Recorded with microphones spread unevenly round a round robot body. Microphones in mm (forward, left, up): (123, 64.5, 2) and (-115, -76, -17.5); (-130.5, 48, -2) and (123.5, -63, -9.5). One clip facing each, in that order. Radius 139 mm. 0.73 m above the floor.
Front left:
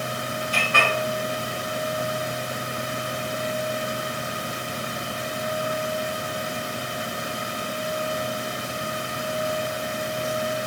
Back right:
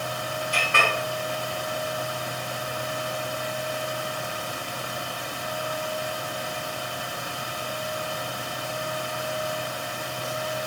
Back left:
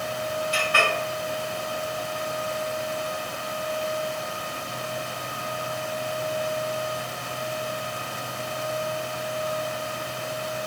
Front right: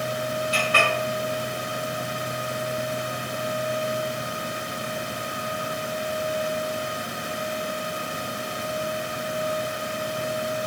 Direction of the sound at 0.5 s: 90° right.